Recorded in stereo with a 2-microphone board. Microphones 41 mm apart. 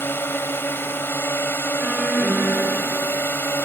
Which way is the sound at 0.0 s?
75° left (ahead or behind).